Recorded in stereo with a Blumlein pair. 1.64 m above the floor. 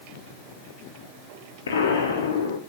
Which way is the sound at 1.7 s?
65° left.